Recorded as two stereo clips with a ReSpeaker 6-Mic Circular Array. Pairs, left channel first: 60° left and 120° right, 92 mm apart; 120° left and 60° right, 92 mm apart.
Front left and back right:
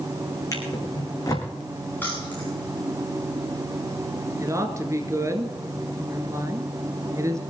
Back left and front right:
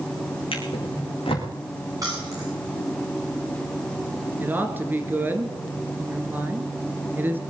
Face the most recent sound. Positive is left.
turn(degrees=-110)